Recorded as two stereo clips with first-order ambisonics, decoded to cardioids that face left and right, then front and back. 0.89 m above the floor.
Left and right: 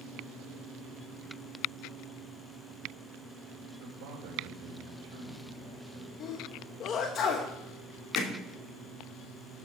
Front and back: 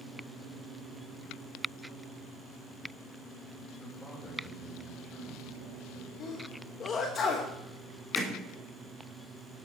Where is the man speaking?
75° right, 4 m.